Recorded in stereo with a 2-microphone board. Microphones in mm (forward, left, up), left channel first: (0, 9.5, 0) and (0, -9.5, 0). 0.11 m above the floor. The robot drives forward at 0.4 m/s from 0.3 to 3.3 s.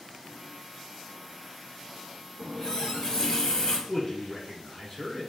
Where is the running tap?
35° left (ahead or behind), 1.0 m; by 3.8 s 30° left (ahead or behind), 1.2 m.